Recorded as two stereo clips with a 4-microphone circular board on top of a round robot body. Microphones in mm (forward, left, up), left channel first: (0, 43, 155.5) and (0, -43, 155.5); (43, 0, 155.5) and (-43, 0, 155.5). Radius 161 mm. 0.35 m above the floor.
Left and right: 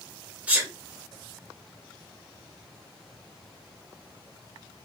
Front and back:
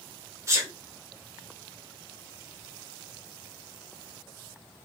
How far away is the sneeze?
About 1.4 m.